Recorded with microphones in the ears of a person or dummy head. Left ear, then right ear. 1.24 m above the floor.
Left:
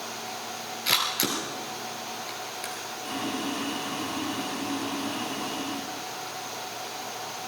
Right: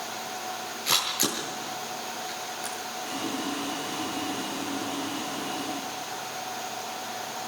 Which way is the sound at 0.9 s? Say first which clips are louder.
Left 1 dB; 10° left (ahead or behind).